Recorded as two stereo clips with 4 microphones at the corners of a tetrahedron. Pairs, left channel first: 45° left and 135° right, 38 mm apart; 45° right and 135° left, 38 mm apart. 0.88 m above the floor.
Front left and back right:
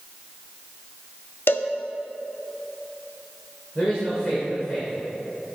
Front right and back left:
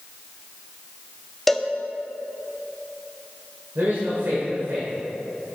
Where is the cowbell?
35° left, 0.5 m.